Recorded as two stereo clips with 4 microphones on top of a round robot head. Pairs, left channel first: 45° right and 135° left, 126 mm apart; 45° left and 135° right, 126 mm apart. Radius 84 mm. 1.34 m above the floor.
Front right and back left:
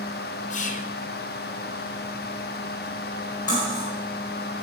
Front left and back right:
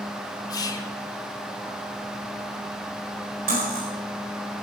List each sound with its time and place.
0.5 s whispering: 15° right, 0.6 m
3.5 s cutlery clinking: 110° right, 4.5 m